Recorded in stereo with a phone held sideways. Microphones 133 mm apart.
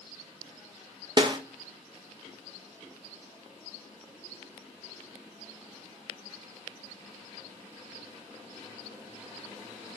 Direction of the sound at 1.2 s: 35° right (ahead or behind).